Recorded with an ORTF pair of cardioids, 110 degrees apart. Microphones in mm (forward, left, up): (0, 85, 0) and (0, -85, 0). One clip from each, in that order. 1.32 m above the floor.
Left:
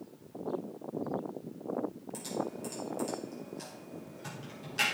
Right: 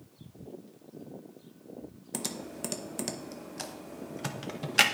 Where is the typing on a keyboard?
65° right, 0.9 m.